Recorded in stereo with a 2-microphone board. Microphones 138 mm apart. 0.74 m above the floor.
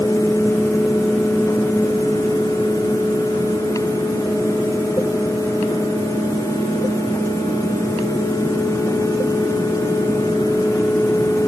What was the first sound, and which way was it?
Only background noise.